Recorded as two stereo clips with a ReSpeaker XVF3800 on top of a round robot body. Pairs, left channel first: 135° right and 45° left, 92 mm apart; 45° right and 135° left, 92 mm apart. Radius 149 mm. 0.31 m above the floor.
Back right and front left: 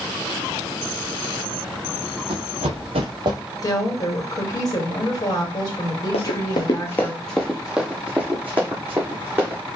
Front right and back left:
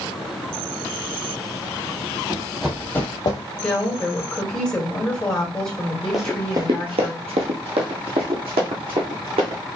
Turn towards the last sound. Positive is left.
turn(degrees=115)